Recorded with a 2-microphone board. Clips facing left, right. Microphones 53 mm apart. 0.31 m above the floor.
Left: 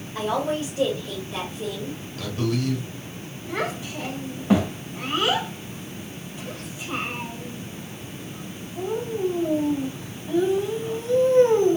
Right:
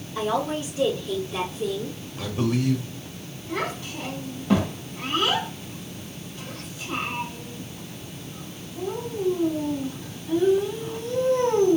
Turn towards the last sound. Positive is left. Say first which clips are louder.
# left 1 dB
turn(degrees=20)  # may be behind; listen again after turning